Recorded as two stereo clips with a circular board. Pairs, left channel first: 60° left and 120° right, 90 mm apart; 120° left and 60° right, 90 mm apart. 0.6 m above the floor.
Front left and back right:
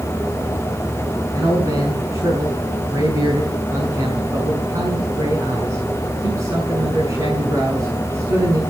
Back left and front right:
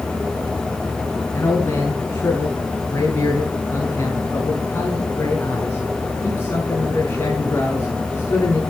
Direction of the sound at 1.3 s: 175° right.